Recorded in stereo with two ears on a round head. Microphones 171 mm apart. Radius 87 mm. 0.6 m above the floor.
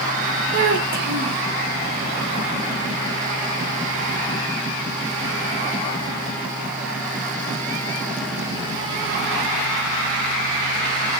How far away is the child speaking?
About 1.9 m.